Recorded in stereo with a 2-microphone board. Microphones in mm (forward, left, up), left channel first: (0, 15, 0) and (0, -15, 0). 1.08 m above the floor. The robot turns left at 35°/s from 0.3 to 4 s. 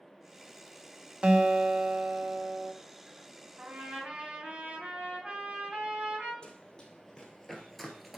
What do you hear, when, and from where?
1.2 s a guitar: 35° right, 0.8 m; by 2.7 s 85° right, 0.8 m
3.6 s a trumpet: 50° right (ahead or behind), 2.5 m; by 6.3 s 40° right (ahead or behind), 2.5 m
6.4 s running footsteps: 25° left (ahead or behind), 1.8 m; by 8.2 s 10° right (ahead or behind), 1.1 m